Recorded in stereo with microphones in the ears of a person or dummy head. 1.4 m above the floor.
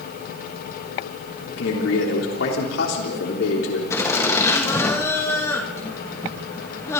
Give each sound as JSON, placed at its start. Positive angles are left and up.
{"t": 1.5, "sound": "a man speaking", "side_deg": 70, "distance_m": 3.5}
{"t": 3.9, "sound": "laughter", "side_deg": 15, "distance_m": 2.5}